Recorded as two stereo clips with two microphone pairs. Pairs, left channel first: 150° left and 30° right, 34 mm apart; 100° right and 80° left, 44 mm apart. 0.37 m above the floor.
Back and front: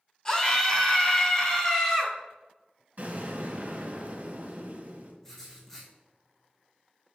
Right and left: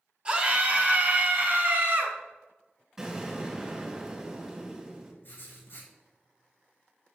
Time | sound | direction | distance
0.2 | a scream | 110° left | 1.5 m
3.0 | an explosion | 5° left | 2.5 m
5.2 | writing | 130° right | 3.5 m